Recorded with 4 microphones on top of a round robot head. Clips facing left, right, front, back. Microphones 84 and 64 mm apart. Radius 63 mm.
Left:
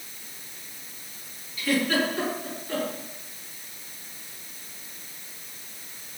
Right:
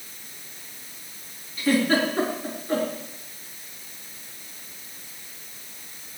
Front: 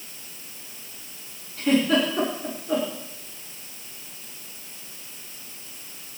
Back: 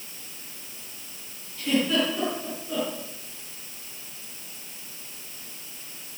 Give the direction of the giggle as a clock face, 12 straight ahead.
1 o'clock.